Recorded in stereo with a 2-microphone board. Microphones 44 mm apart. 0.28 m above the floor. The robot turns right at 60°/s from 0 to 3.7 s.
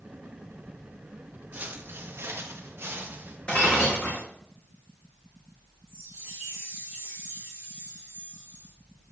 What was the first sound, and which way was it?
Footsteps, 45° right (ahead or behind).